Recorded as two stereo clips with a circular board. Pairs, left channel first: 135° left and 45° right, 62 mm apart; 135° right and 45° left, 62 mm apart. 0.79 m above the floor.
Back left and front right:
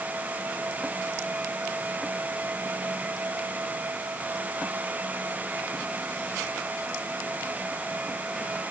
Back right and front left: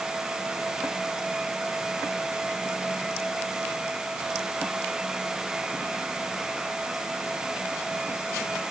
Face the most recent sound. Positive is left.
No sound to turn to.